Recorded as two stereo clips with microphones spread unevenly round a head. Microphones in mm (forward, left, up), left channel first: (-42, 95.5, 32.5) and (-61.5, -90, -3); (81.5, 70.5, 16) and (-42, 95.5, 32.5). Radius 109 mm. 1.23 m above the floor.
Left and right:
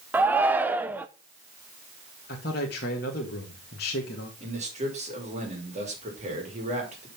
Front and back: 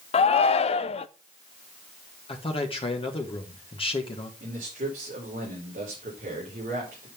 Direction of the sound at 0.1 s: 25° right.